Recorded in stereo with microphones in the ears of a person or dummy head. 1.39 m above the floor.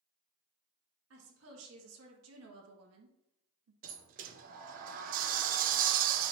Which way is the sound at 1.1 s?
80° right.